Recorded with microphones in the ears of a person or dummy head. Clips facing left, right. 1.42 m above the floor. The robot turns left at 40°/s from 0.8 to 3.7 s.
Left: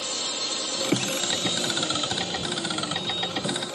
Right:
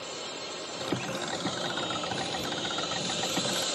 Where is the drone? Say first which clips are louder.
Left 4 dB; 70° left; by 3.8 s 50° right.